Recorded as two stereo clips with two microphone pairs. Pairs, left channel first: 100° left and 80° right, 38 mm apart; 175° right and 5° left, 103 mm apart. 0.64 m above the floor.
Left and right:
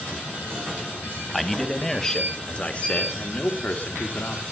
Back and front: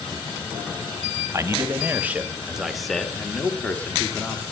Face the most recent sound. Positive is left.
turn(degrees=125)